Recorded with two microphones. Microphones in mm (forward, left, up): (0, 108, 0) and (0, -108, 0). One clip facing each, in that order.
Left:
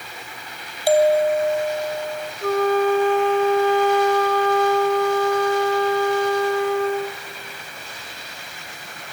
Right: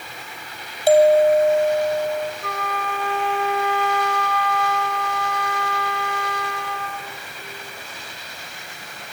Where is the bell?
20° right (ahead or behind), 1.8 m.